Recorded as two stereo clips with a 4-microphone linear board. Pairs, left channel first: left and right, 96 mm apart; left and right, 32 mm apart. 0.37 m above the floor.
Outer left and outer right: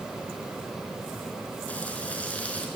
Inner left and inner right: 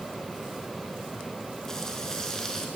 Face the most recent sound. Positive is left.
turn(degrees=15)  # may be behind; listen again after turning